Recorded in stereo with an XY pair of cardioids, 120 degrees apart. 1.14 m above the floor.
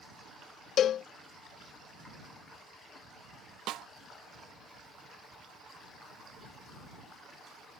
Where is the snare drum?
70° right.